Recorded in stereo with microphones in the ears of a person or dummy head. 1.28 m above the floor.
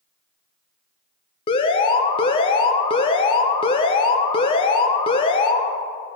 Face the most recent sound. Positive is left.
turn(degrees=30)  # may be behind; listen again after turning